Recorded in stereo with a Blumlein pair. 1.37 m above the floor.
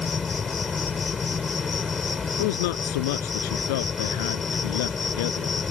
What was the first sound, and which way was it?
An insect, 15° left.